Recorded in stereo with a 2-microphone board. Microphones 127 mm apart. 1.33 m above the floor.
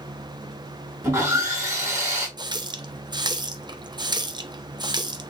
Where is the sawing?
25° right (ahead or behind), 3 m.